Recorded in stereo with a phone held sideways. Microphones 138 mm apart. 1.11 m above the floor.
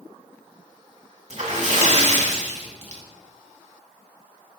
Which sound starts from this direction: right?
A splash, at 1.3 s.